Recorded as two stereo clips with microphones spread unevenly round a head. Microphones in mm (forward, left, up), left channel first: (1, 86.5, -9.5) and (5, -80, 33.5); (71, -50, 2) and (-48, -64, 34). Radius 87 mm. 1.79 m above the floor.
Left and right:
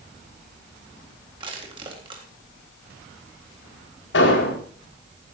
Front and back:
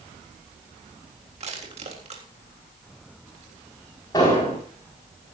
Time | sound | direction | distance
1.4 | crushing | 150° right | 3.5 m
4.1 | an explosion | 75° left | 5 m